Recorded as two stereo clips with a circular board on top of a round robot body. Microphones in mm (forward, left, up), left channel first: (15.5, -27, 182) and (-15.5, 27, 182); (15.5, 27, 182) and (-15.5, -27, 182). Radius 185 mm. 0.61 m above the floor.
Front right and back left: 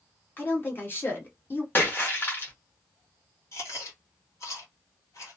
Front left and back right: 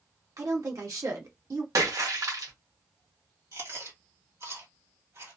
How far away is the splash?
About 1.3 m.